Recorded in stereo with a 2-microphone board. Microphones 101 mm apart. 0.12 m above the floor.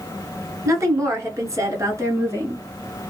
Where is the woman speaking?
30° right (ahead or behind), 1.3 m; by 2.6 s 25° right (ahead or behind), 1.4 m.